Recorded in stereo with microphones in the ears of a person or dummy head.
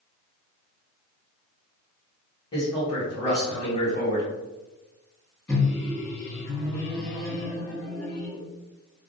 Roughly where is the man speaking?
Left.